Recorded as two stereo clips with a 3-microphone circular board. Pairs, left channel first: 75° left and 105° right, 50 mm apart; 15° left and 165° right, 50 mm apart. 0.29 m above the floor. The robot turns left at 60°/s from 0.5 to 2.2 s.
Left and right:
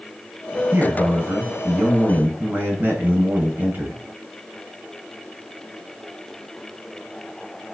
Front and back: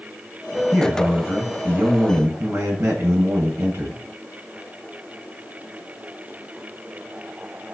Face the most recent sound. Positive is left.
turn(degrees=-150)